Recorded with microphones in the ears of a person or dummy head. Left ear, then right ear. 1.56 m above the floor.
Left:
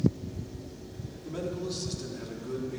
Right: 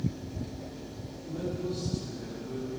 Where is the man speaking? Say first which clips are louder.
Even; 60° left (ahead or behind), 4 m; by 2.8 s 90° left, 3.5 m.